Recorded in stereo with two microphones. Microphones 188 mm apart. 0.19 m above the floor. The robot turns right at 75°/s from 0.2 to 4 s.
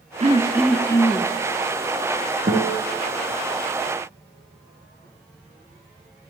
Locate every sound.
0.2 s throat clearing: 40° right, 0.8 m; by 1.3 s 45° left, 0.8 m
2.5 s a guitar: 50° right (ahead or behind), 3 m; by 2.8 s 75° right (ahead or behind), 3 m